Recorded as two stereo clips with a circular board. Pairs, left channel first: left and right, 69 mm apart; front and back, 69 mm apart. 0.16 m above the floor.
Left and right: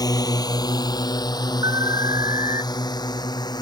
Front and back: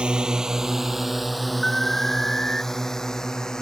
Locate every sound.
0.0 s a drone: 105° left; by 3.6 s 80° left
1.6 s an alarm: 80° right